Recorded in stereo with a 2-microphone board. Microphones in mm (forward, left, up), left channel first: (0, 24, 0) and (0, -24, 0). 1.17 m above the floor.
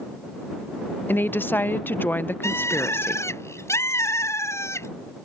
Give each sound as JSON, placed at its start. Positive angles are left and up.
{"t": 1.1, "sound": "a woman speaking", "side_deg": 45}
{"t": 2.4, "sound": "a bird", "side_deg": 70}